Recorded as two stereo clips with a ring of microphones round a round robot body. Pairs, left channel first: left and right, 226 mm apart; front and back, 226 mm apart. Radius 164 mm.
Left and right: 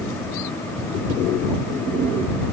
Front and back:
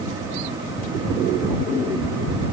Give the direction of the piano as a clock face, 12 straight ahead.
No piano in this recording.